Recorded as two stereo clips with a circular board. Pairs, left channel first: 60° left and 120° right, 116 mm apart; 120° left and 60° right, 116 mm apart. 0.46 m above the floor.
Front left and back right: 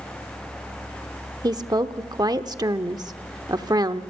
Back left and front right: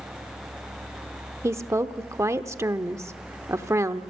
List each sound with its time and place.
1.4 s a woman speaking: 105° right, 0.8 m